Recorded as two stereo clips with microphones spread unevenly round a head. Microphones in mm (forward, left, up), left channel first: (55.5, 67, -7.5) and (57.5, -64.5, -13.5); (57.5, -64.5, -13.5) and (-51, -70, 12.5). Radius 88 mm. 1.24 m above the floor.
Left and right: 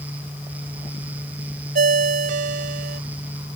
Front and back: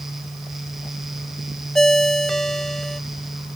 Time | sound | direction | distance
1.8 | a ringtone | 85° right | ?